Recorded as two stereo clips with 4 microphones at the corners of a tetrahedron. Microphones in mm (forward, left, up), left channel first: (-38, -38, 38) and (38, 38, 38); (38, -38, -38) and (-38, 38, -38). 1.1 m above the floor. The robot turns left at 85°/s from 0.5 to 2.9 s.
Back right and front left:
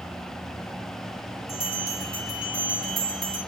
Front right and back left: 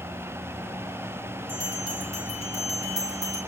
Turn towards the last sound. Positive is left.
turn(degrees=85)